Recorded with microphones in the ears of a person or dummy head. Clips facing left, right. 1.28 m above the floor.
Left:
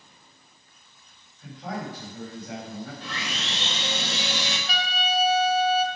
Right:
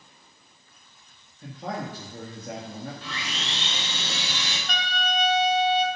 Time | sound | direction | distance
1.4 | a man speaking | 50° right (ahead or behind) | 2.5 m
3.0 | sawing | 40° left (ahead or behind) | 3 m
4.7 | a trumpet | 5° left (ahead or behind) | 0.9 m